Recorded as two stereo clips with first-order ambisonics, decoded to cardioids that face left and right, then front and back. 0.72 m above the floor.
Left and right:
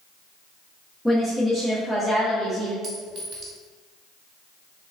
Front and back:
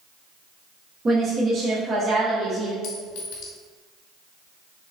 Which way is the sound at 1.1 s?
Straight behind.